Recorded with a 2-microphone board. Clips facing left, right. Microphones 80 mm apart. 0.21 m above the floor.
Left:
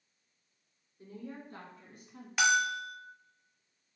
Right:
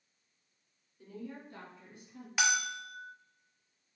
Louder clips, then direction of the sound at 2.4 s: Left 5 dB; centre (ahead or behind).